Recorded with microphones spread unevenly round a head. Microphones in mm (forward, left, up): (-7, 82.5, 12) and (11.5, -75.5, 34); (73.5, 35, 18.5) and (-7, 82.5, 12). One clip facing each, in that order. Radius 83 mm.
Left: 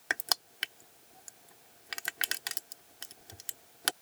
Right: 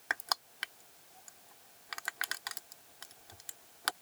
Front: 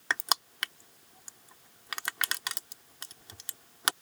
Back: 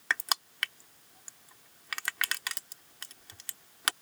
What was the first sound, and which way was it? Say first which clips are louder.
Crushing: left 1 dB, front 1 dB; 35° left.